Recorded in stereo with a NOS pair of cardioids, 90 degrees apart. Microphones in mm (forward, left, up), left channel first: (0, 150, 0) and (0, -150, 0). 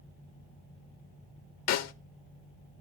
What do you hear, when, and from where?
1.7 s a snare drum: 70° left, 0.7 m